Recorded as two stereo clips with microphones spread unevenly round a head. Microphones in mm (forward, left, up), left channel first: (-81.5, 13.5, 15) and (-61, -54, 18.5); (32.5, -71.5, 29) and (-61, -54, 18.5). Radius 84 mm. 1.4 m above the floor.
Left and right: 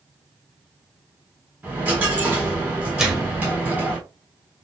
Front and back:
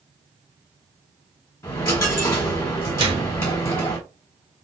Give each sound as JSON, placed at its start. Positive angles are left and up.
{"t": 1.6, "sound": "a dropped coin", "azimuth_deg": -25, "distance_m": 1.1}
{"t": 3.0, "sound": "a microwave", "azimuth_deg": -155, "distance_m": 1.6}